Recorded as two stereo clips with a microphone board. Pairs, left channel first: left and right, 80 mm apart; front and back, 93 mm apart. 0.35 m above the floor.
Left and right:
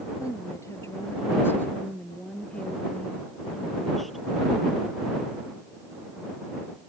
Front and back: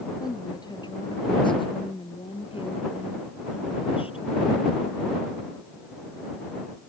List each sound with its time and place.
0.2 s a woman speaking: 45° left; by 4.2 s straight ahead